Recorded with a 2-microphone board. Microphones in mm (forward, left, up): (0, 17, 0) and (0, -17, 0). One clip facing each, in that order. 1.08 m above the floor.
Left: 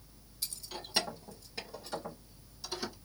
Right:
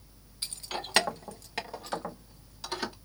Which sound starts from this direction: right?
Keys jangling, at 0.4 s.